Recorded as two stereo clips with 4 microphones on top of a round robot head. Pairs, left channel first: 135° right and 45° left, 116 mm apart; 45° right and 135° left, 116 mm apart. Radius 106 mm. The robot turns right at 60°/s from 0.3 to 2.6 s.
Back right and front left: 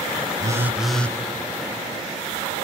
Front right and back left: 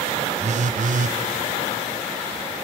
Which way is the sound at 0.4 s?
105° left.